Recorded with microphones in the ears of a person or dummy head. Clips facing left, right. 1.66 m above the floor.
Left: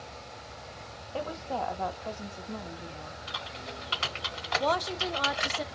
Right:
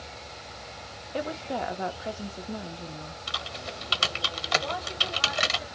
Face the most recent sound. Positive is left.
turn(degrees=90)